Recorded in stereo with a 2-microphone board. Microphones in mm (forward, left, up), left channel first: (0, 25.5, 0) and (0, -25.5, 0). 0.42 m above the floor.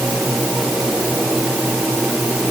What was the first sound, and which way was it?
Only background noise.